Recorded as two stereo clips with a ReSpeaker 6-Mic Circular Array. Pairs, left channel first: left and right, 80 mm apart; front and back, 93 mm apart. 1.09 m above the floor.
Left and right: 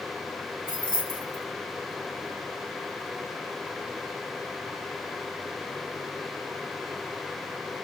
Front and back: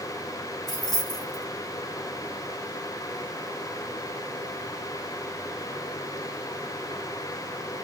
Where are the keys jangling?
85° left, 1.6 m.